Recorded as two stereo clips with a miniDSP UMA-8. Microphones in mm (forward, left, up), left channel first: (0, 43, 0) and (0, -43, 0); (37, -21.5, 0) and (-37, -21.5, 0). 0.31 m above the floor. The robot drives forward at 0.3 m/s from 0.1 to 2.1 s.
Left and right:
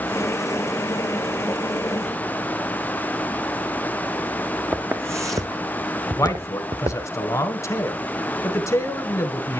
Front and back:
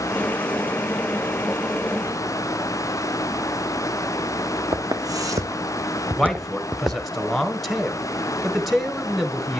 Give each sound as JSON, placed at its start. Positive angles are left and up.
{"t": 4.7, "sound": "footsteps", "azimuth_deg": -155, "distance_m": 1.2}
{"t": 6.2, "sound": "a man speaking", "azimuth_deg": 85, "distance_m": 1.3}